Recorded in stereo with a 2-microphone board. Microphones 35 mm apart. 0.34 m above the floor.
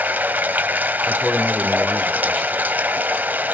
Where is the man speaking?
10° left (ahead or behind), 1.1 m.